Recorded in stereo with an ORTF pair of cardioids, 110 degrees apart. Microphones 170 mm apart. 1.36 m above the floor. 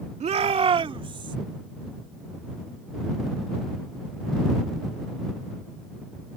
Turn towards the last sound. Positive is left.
turn(degrees=-30)